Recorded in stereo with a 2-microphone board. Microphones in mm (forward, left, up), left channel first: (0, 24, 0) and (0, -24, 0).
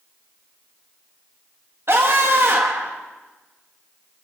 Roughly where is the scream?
Right.